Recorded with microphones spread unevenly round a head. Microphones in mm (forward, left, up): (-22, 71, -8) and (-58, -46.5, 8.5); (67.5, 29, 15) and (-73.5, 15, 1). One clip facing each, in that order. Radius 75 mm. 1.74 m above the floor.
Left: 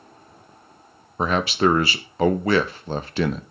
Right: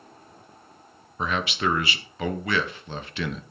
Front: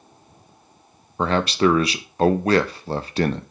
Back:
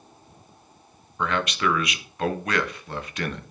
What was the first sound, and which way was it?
A man speaking, 25° left.